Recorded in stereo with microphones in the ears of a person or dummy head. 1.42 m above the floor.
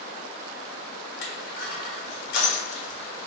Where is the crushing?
75° left (ahead or behind), 1.4 m.